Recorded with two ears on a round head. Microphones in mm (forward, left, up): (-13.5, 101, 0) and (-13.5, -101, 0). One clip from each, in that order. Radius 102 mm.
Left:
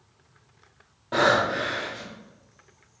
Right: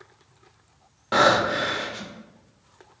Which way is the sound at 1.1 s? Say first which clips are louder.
Right 2 dB; 55° right (ahead or behind).